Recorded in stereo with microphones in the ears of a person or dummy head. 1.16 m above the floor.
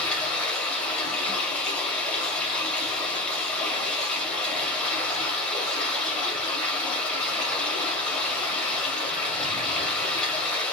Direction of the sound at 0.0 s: 10° left (ahead or behind).